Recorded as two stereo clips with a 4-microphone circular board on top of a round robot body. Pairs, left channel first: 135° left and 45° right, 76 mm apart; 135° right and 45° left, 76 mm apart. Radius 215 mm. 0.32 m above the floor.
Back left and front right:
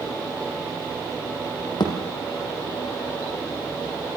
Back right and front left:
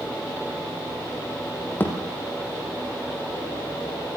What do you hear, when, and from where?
1.8 s a thud: 160° left, 5.5 m